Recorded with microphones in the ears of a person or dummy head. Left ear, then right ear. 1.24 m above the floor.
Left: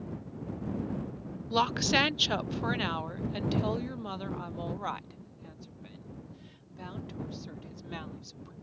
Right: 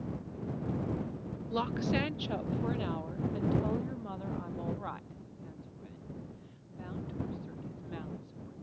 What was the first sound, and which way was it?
A woman speaking, 25° left (ahead or behind).